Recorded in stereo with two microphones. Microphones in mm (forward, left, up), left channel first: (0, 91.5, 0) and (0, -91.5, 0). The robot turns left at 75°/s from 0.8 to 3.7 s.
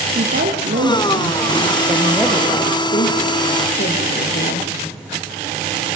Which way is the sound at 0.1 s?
70° right.